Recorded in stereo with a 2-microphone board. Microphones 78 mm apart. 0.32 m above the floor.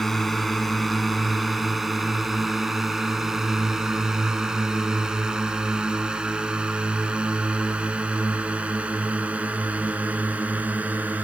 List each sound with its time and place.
0.0 s a drone: centre (ahead or behind); by 11.2 s 20° right (ahead or behind)